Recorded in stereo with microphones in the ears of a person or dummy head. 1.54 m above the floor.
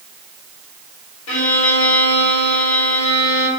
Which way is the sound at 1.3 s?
75° left (ahead or behind).